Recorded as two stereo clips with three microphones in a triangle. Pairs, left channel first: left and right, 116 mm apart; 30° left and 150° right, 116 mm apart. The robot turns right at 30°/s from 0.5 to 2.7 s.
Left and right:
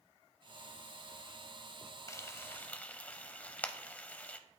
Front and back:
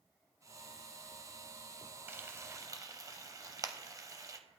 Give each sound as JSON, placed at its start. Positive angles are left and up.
{"t": 2.1, "sound": "frying", "azimuth_deg": 145, "distance_m": 0.5}